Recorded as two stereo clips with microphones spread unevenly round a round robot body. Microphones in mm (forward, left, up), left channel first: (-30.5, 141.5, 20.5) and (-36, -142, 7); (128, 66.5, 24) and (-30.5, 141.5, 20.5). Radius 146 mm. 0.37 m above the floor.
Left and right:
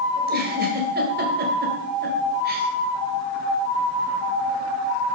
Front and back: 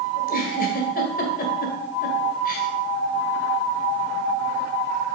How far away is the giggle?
About 1.8 m.